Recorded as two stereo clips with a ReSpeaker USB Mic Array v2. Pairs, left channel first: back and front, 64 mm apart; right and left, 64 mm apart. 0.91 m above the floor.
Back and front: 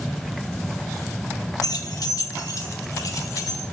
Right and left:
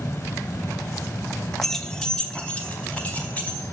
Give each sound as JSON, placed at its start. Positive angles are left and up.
{"t": 1.6, "sound": "keys jangling", "azimuth_deg": -175, "distance_m": 0.8}